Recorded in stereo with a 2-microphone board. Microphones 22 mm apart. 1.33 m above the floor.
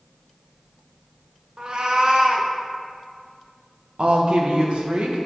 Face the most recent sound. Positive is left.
turn(degrees=-60)  # may be behind; listen again after turning